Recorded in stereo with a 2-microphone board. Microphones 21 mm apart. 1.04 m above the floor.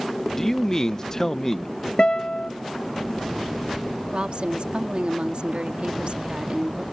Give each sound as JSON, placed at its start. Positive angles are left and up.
{"t": 0.4, "sound": "a man speaking", "side_deg": 20}
{"t": 2.0, "sound": "a guitar", "side_deg": 50}
{"t": 4.1, "sound": "a woman speaking", "side_deg": -60}